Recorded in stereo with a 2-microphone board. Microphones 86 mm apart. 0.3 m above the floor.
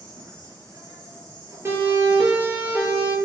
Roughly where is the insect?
Right.